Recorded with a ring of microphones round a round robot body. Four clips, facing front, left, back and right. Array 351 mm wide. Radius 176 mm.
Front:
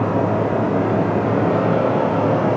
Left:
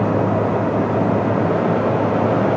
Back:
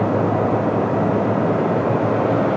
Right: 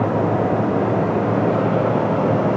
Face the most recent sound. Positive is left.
No sound to turn to.